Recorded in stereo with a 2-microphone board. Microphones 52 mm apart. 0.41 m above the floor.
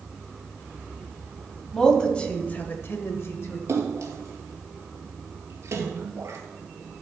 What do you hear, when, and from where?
1.7 s a woman speaking: 10° left (ahead or behind), 2 m; by 3.6 s 55° left (ahead or behind), 1.5 m
3.7 s a splash: 60° right (ahead or behind), 1.9 m